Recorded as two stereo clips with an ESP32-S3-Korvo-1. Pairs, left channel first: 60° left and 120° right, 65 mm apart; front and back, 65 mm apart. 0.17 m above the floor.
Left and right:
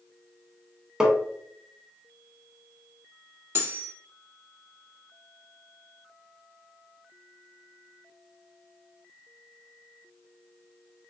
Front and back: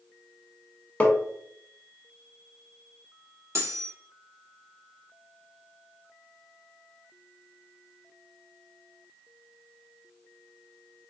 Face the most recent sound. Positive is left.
turn(degrees=-155)